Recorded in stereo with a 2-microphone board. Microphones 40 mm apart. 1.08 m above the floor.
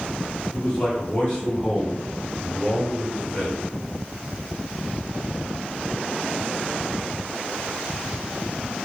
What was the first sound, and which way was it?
A man speaking, 35° left (ahead or behind).